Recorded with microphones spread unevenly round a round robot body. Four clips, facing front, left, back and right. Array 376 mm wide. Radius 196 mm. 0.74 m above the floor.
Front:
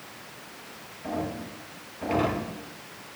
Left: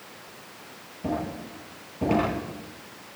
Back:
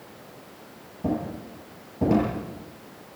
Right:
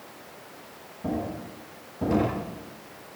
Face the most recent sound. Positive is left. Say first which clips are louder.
# even, back 3 dB
turn(degrees=175)